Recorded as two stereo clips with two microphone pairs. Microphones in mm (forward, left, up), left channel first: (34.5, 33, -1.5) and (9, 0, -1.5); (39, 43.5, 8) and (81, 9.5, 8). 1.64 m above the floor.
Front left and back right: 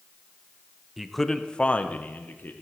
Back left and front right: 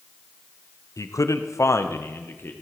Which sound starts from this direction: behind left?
A man speaking, at 1.0 s.